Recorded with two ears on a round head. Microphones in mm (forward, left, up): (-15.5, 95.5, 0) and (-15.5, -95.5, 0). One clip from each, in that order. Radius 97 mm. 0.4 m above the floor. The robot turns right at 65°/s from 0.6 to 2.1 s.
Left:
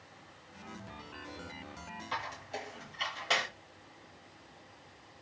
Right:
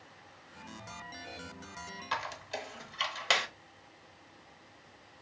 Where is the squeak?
60° right (ahead or behind), 1.0 m.